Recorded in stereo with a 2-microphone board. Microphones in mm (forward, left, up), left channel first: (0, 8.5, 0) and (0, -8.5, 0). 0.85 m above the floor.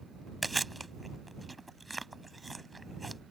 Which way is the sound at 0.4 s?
Centre (ahead or behind).